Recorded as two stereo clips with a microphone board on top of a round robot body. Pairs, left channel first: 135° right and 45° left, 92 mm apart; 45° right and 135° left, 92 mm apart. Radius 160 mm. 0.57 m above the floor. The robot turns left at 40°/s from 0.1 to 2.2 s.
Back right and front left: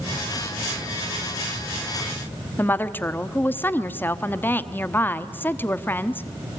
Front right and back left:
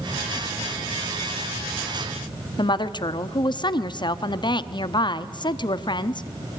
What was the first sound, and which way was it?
A woman speaking, 70° right.